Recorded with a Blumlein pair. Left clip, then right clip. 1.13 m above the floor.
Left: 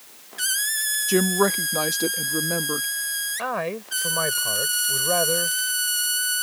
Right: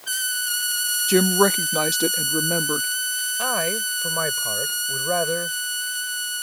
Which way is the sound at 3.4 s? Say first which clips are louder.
Right 6 dB; straight ahead.